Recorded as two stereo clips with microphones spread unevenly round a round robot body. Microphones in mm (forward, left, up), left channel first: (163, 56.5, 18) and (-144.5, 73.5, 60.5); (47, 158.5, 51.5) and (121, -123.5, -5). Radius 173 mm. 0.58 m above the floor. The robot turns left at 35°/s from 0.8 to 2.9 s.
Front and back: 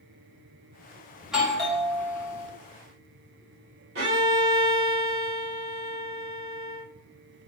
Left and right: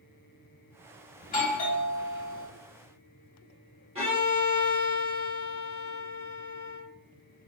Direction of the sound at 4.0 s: 135° right.